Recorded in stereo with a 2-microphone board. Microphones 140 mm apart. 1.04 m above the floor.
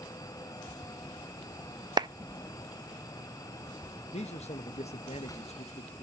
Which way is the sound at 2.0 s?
30° right (ahead or behind).